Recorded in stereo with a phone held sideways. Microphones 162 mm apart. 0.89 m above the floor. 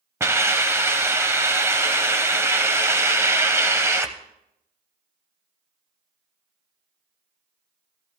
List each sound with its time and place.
0.2 s a hiss: 15° right (ahead or behind), 0.9 m